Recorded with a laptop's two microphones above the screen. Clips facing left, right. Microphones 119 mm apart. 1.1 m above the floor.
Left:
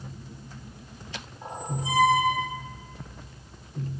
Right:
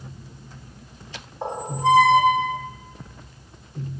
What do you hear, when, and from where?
1.4 s a squeak: 70° right (ahead or behind), 1.5 m